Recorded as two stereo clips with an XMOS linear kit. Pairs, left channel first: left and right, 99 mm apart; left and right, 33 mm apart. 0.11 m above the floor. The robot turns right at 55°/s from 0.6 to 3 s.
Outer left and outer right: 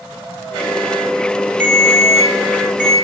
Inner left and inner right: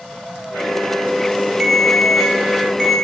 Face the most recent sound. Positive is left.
turn(degrees=35)